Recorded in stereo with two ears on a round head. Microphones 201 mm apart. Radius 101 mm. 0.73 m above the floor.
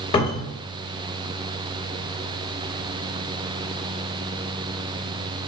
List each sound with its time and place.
0.1 s a cupboard door: 25° left (ahead or behind), 1.0 m